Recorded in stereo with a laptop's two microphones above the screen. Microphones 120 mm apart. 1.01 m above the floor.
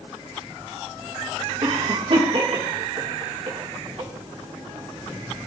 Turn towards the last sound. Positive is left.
turn(degrees=-50)  # may be behind; listen again after turning